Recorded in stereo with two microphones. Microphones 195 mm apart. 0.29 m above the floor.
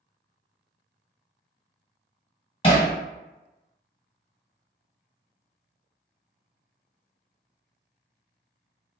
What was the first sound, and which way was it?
Hammering, 30° left (ahead or behind).